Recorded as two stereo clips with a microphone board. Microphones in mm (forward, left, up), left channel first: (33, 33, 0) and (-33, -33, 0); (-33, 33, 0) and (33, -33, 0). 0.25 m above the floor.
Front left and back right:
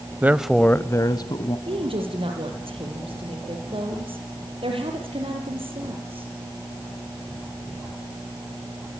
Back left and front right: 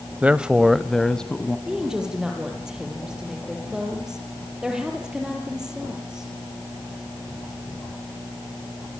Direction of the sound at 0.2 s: 100° right.